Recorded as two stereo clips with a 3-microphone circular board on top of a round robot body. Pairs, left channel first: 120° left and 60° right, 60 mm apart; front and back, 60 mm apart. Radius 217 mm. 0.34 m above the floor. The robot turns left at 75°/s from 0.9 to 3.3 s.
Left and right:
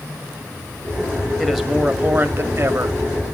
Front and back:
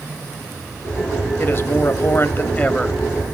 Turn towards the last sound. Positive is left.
turn(degrees=-100)